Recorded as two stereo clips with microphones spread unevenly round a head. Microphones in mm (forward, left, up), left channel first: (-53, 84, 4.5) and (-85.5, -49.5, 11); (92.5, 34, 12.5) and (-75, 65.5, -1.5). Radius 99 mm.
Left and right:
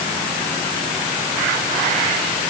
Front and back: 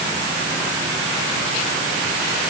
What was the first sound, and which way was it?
Only background noise.